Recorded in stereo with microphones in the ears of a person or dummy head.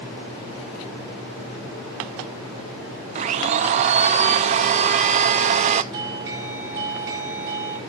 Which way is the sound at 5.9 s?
25° right (ahead or behind).